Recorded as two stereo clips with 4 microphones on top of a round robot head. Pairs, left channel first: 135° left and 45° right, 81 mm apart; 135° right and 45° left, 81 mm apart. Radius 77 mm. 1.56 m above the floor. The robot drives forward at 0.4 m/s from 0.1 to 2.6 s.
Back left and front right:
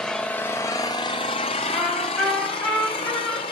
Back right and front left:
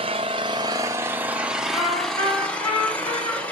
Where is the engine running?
55° left, 0.7 m; by 3.5 s 150° left, 1.0 m.